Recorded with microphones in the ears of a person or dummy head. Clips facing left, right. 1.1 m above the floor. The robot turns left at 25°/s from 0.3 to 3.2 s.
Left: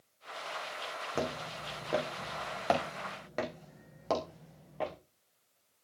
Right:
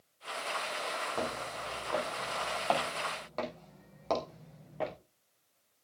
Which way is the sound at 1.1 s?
30° left (ahead or behind).